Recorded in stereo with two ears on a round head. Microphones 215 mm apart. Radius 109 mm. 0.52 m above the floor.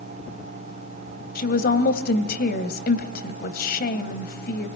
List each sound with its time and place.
1.4 s a woman speaking: 40° left (ahead or behind), 2.5 m